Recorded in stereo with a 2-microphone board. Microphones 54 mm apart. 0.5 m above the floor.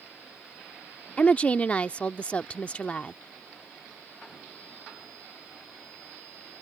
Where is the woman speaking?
25° left (ahead or behind).